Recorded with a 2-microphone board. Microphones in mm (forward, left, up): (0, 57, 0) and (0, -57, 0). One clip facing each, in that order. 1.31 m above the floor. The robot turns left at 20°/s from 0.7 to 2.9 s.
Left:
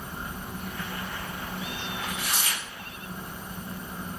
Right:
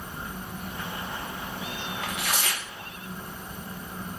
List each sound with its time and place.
2.0 s tearing paper: 80° right, 0.6 m